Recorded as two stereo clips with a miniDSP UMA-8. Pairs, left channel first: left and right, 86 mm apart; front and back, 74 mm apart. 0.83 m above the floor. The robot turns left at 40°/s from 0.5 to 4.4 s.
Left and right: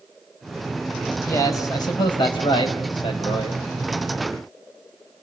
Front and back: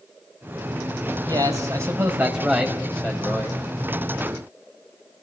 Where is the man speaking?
150° left, 4.5 m; by 3.6 s 55° left, 4.5 m.